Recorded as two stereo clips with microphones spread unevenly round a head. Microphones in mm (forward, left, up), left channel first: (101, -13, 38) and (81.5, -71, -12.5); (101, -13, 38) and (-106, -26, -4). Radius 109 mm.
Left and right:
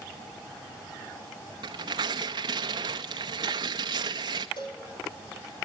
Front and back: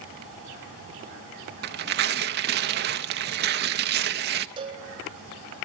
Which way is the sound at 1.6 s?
Straight behind.